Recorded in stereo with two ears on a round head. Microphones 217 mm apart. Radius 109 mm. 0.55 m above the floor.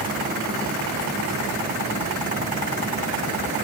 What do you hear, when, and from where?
Only background noise.